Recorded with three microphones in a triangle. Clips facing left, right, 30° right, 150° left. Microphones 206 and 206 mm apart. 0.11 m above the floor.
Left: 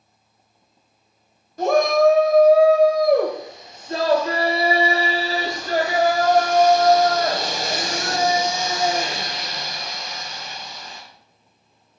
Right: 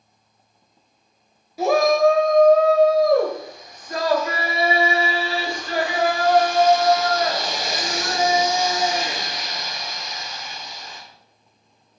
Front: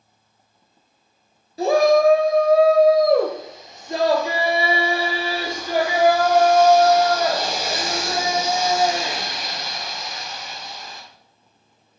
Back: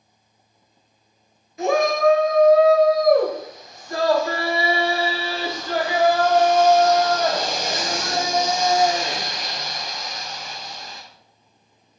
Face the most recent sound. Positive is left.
turn(degrees=55)